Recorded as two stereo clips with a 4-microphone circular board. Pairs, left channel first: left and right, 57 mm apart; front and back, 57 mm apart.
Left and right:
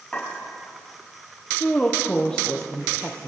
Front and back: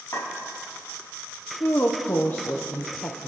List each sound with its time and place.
0.1 s a clink: 20° left, 4.5 m
1.6 s a woman speaking: 25° left, 0.7 m